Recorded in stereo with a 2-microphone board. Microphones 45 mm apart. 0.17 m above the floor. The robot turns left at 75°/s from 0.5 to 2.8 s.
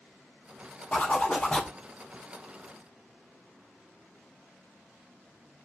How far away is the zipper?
About 1.0 m.